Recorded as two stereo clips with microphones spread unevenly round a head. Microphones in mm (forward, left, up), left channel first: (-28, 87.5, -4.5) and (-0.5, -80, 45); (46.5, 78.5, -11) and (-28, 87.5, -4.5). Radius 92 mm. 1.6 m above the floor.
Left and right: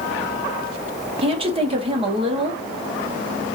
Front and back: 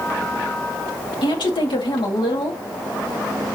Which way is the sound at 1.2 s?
25° right.